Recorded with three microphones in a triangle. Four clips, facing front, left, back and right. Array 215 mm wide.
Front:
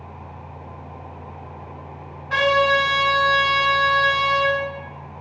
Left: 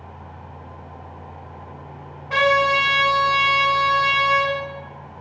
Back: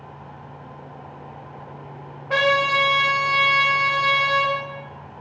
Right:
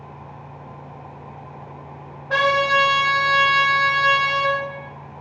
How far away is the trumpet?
About 1.9 m.